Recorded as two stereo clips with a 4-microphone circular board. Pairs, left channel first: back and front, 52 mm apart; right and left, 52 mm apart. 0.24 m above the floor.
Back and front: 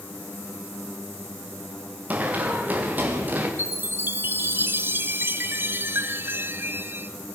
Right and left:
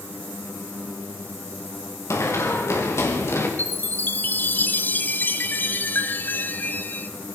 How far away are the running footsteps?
About 6.5 m.